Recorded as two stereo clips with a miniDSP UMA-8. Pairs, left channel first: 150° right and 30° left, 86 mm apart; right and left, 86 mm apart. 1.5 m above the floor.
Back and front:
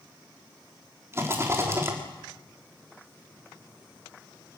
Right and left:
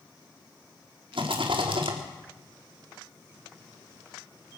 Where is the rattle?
90° left, 3.5 m.